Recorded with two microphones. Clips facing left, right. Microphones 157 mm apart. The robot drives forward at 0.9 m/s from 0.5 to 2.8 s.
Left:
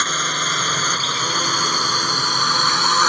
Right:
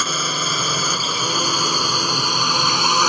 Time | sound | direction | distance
0.0 | a drone | 10° right (ahead or behind) | ?